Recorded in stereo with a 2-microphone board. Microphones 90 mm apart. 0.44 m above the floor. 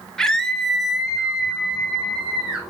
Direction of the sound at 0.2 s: 5° left (ahead or behind).